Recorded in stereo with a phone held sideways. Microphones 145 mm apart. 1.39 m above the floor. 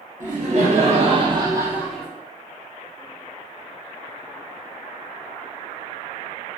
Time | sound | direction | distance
0.2 | laughter | 60° right (ahead or behind) | 1.1 m